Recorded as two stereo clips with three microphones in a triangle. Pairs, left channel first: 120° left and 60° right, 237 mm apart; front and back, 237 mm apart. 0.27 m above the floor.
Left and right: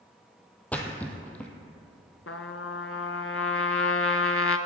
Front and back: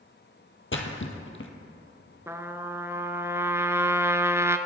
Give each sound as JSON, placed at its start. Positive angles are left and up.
{"t": 0.7, "sound": "a splash", "azimuth_deg": 35, "distance_m": 1.2}
{"t": 2.3, "sound": "a trumpet", "azimuth_deg": 100, "distance_m": 0.6}